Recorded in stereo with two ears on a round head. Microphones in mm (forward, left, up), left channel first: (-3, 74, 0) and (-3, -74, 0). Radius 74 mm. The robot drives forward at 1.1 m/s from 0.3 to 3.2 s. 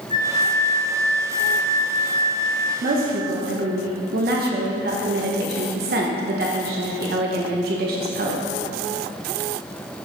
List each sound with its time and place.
0.1 s a flute: 40° left (ahead or behind), 1.2 m; by 2.7 s 20° left (ahead or behind), 2.0 m
2.8 s a woman speaking: 50° right (ahead or behind), 1.2 m; by 8.4 s 65° right (ahead or behind), 1.1 m